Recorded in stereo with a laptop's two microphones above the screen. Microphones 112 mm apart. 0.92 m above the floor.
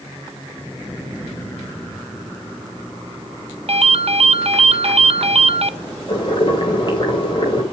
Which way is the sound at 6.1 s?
45° left (ahead or behind).